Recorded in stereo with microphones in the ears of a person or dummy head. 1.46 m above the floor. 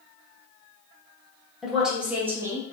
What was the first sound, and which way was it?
A woman speaking, centre (ahead or behind).